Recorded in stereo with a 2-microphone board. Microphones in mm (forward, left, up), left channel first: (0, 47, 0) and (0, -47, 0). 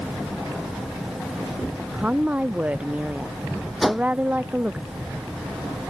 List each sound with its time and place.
1.8 s a woman speaking: 15° right (ahead or behind)
3.8 s a whoosh: centre (ahead or behind)